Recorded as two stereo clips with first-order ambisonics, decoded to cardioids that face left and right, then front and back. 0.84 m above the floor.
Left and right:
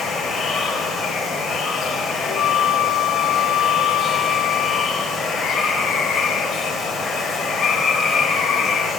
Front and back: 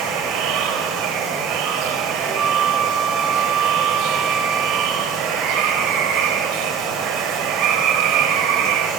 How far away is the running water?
About 1.5 m.